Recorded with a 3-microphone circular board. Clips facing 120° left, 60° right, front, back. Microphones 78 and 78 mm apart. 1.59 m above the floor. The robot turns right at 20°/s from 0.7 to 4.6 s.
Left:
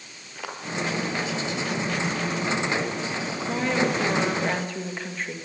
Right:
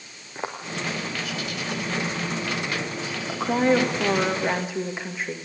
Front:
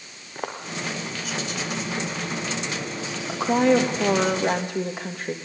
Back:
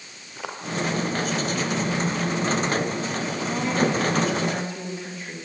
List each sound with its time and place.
0.3 s footsteps: 15° right, 2.5 m
3.3 s a woman speaking: 5° right, 2.5 m; by 5.3 s 20° left, 2.5 m